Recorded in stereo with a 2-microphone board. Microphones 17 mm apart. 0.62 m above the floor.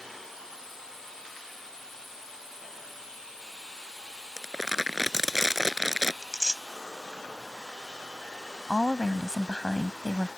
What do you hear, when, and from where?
4.4 s crumpling: 25° right (ahead or behind)
6.2 s tearing paper: 15° right (ahead or behind)
8.7 s a woman speaking: 30° left (ahead or behind)